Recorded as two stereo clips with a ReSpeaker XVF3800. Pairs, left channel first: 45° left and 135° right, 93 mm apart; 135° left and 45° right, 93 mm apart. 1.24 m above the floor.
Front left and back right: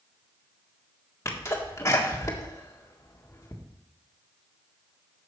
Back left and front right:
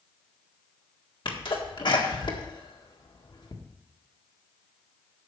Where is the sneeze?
105° left, 1.6 m.